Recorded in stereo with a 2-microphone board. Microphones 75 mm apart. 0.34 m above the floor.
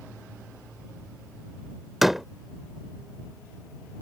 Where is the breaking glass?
No breaking glass in this recording.